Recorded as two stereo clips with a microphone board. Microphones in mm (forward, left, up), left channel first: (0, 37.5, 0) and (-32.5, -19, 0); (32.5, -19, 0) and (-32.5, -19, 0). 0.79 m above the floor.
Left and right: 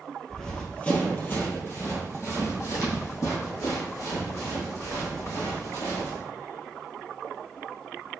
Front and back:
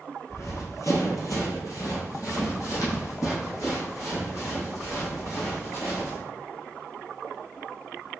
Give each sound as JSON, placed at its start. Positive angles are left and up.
{"t": 0.3, "sound": "running footsteps", "azimuth_deg": -20, "distance_m": 1.1}